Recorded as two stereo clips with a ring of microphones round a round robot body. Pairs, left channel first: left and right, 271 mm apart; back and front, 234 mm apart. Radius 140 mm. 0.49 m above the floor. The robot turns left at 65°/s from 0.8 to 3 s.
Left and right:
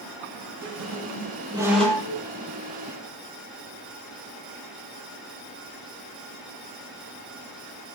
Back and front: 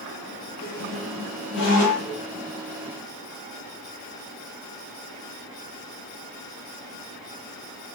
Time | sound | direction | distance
0.6 | a squeak | 115° right | 7.5 m